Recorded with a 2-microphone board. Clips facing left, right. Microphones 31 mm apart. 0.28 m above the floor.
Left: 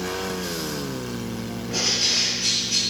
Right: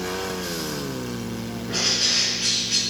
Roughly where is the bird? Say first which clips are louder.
Even; right.